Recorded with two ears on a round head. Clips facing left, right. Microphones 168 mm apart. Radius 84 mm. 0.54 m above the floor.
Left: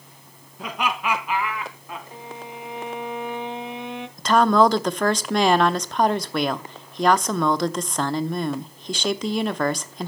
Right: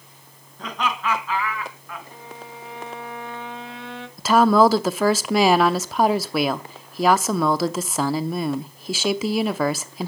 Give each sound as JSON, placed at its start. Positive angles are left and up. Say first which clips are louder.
{"t": 0.6, "sound": "laughter", "louder": "even", "side_deg": 10, "distance_m": 5.0}
{"t": 2.1, "sound": "a violin", "louder": "left 3 dB", "side_deg": 20, "distance_m": 1.1}
{"t": 4.2, "sound": "a woman speaking", "louder": "right 2 dB", "side_deg": -5, "distance_m": 0.7}